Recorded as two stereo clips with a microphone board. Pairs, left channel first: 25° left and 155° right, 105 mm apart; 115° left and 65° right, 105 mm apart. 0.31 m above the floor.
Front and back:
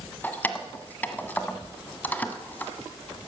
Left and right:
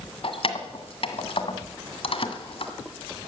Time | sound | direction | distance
0.2 | keys jangling | 95° left | 1.7 m